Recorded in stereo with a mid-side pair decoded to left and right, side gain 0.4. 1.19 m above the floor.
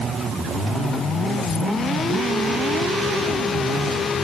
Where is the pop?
I don't hear a pop.